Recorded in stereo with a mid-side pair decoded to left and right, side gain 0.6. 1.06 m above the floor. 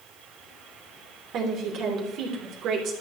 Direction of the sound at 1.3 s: 60° right.